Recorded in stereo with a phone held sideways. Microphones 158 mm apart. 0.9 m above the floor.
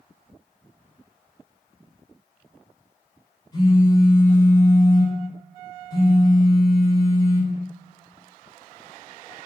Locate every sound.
3.5 s a phone buzzing: 25° left (ahead or behind), 1.3 m